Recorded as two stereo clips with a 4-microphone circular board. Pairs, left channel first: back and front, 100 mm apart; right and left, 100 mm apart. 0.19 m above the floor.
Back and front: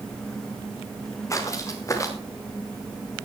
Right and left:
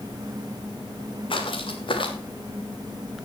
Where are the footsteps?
120° right, 2.5 m.